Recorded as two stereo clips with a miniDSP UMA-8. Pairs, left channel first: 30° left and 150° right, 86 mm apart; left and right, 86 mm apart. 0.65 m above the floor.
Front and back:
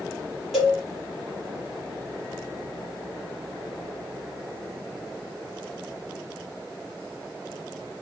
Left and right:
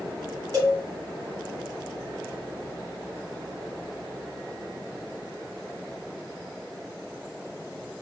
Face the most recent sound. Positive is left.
turn(degrees=-65)